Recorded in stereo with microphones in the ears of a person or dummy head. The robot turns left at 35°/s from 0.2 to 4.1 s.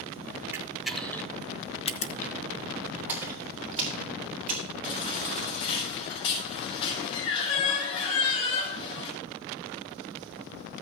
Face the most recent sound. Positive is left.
turn(degrees=30)  # may be behind; listen again after turning